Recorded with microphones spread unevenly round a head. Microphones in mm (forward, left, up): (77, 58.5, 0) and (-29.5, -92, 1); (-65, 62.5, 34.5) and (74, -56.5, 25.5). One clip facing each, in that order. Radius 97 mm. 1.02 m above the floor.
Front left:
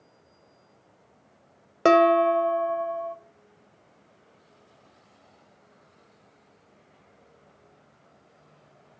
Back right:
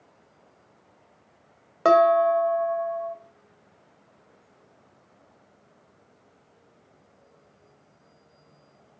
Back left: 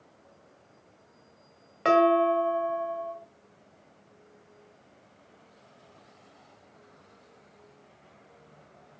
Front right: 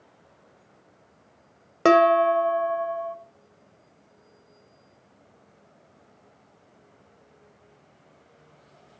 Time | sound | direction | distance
1.9 | dishes clattering | 5° right | 0.9 m